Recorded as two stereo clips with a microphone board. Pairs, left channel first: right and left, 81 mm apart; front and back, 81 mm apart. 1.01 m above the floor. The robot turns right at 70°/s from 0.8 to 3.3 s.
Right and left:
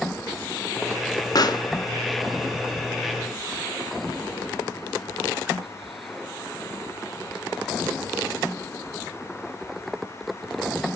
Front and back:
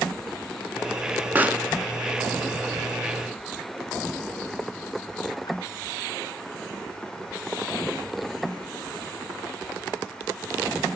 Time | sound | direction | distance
1.4 | a pop | 115° right | 0.7 m